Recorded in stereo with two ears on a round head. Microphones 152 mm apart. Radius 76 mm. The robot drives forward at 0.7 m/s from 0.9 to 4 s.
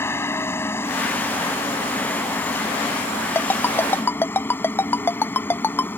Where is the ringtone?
15° left (ahead or behind).